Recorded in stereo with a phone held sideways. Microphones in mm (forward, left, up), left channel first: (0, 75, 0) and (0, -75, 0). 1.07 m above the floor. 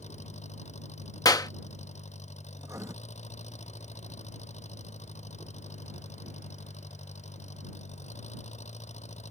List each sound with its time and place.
0.0 s an engine running: 50° left (ahead or behind)
1.2 s a clap: 25° left (ahead or behind)
2.6 s writing: 20° right (ahead or behind)